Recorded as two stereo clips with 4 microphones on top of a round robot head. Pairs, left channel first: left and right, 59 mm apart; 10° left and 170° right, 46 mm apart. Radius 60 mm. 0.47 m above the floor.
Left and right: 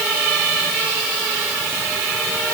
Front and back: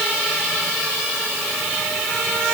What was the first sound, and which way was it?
Only background noise.